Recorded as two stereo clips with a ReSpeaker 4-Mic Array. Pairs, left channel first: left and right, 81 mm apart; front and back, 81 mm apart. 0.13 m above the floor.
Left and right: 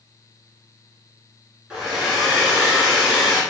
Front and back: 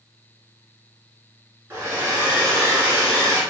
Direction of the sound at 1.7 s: 160° right.